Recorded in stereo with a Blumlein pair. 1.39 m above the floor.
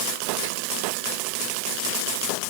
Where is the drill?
No drill in this recording.